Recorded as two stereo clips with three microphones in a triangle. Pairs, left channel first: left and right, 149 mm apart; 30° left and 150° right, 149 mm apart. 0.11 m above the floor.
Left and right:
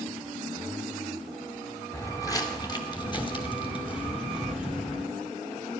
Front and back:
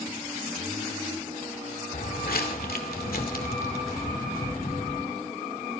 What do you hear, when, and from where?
1.9 s footsteps: 20° left, 1.4 m; by 5.0 s 40° left, 3.5 m